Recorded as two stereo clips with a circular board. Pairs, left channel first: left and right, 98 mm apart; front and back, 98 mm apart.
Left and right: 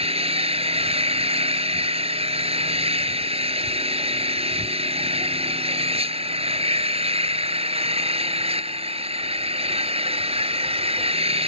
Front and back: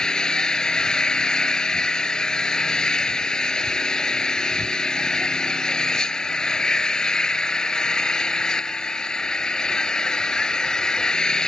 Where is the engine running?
85° right.